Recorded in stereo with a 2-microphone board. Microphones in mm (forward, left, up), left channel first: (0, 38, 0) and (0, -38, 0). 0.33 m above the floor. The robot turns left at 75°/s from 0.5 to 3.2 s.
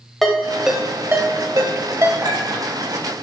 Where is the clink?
70° right (ahead or behind), 2.5 m; by 2.7 s 35° right (ahead or behind), 2.5 m.